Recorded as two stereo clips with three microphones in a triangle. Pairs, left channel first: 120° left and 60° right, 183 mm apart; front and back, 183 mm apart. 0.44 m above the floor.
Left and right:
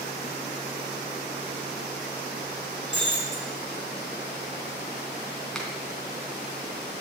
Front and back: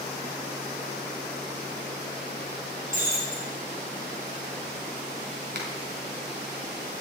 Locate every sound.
2.9 s breaking glass: 135° left, 6.5 m
5.5 s a finger snap: 155° right, 3 m